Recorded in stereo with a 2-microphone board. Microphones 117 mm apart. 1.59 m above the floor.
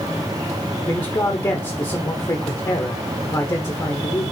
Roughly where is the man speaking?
Left.